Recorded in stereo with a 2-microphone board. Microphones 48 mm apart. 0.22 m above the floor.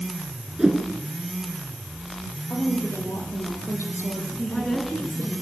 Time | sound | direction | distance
0.6 | a whoosh | 10° right (ahead or behind) | 3.5 m
2.5 | a woman speaking | 60° left (ahead or behind) | 8.5 m
4.4 | a woman speaking | 20° left (ahead or behind) | 3.5 m